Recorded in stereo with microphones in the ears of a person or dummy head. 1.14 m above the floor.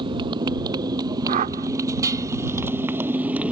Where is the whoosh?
40° right (ahead or behind).